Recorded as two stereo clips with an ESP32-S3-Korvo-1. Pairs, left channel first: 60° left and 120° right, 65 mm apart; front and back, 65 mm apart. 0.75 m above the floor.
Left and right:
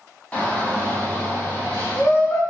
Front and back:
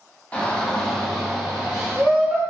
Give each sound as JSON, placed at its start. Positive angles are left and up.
{"t": 0.3, "sound": "a shout", "azimuth_deg": 30, "distance_m": 1.0}